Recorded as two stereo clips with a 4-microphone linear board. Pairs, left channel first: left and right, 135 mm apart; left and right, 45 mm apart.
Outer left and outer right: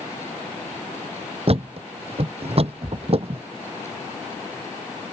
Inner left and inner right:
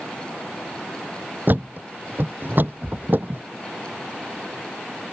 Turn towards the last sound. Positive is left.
turn(degrees=-50)  # may be behind; listen again after turning